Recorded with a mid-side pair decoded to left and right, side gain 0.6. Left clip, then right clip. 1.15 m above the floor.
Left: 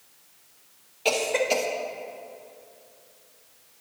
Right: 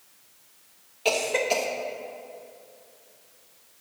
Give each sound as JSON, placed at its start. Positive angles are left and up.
{"t": 1.1, "sound": "a cough", "azimuth_deg": 5, "distance_m": 1.2}